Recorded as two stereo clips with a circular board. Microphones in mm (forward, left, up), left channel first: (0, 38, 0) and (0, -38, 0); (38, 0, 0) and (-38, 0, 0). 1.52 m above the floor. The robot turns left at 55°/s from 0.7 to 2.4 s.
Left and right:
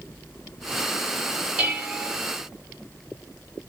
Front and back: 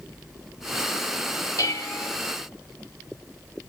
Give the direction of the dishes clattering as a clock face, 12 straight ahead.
1 o'clock.